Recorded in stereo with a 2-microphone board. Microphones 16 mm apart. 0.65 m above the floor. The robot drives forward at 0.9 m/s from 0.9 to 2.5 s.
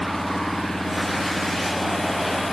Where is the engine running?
55° left (ahead or behind); by 2.5 s 60° left (ahead or behind).